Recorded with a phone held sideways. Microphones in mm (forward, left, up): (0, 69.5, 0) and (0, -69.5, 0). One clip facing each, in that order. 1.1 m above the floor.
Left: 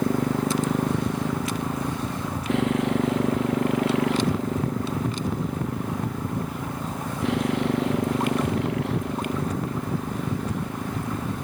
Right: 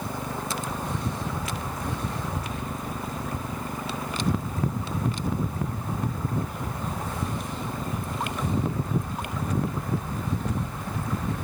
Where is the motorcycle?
80° left; by 11.4 s 75° left (ahead or behind).